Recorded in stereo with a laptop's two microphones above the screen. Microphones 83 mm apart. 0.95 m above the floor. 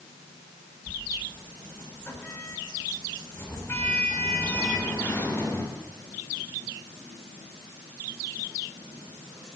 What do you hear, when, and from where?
0.9 s a sliding door: 25° left (ahead or behind), 7 m